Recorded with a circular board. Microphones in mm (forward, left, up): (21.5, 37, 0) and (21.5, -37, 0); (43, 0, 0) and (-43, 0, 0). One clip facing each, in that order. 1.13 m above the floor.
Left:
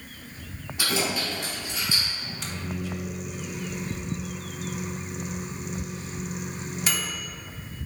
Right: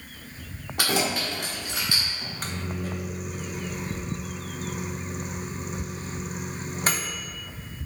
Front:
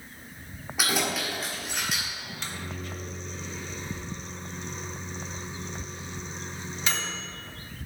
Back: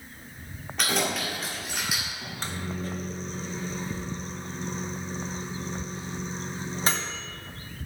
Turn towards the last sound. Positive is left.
turn(degrees=-130)